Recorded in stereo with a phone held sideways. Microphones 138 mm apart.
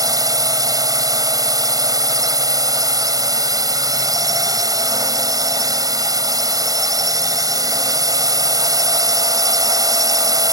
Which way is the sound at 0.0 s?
25° right (ahead or behind).